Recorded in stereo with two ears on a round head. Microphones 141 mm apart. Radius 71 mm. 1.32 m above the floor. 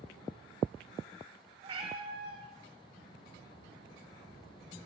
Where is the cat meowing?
35° right (ahead or behind), 1.4 m.